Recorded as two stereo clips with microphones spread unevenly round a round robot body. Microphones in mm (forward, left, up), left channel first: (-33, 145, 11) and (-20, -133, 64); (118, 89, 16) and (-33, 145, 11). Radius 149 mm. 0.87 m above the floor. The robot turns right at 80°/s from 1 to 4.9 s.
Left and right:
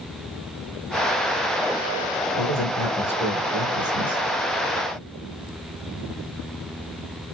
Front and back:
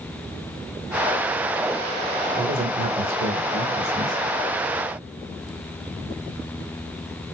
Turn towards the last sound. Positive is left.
turn(degrees=-30)